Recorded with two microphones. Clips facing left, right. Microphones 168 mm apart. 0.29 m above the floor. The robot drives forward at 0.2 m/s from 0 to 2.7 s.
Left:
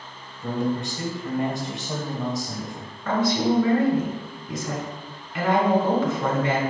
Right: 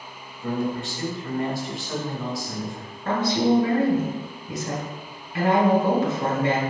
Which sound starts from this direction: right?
A woman speaking, at 3.0 s.